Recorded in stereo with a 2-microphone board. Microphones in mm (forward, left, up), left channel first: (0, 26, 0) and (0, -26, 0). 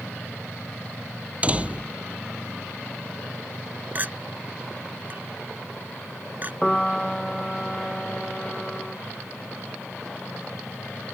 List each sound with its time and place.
1.4 s a door slam: 25° right (ahead or behind)
4.0 s a clink: 35° right (ahead or behind)
6.6 s a piano: 5° left (ahead or behind)